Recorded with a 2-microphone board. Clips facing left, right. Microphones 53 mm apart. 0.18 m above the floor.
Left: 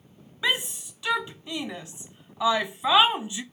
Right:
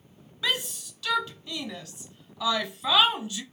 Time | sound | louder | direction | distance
0.4 | a shout | left 3 dB | 20° left (ahead or behind) | 1.0 m